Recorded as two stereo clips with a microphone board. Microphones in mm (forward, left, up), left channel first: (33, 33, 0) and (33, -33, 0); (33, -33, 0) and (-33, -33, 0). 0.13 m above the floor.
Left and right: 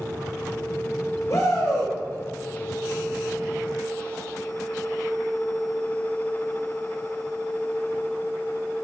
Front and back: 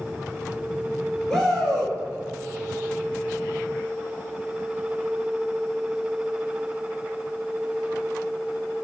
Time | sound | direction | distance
1.3 | a shout | 80° left | 2 m